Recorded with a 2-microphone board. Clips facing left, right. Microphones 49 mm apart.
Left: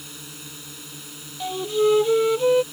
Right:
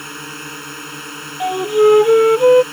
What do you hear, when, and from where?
0.0 s a drone: 55° right (ahead or behind)
1.4 s a flute: 35° right (ahead or behind)